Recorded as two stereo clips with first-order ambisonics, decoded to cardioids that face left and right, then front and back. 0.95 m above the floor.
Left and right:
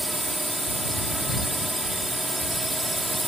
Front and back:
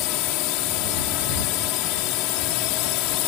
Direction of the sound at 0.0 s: 5° right.